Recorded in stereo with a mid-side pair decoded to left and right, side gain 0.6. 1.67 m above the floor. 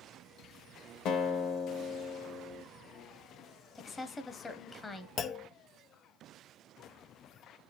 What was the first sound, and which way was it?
A guitar, 65° left.